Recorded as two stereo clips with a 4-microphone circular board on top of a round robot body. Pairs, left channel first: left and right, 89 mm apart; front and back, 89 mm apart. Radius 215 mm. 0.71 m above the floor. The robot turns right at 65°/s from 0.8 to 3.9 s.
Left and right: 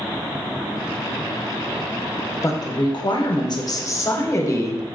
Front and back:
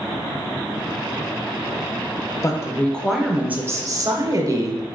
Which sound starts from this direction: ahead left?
A woman speaking, at 2.4 s.